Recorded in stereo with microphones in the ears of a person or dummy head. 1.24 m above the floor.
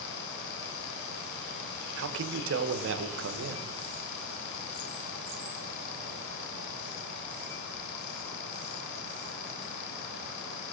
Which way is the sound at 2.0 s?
70° right (ahead or behind).